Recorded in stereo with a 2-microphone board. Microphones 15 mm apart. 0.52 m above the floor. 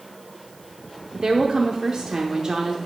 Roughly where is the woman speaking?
Right.